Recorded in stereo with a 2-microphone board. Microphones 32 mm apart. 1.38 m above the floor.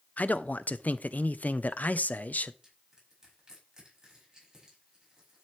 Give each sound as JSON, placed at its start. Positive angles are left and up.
{"t": 0.2, "sound": "a man speaking", "side_deg": 55, "distance_m": 0.7}
{"t": 2.6, "sound": "crushing", "side_deg": -20, "distance_m": 6.0}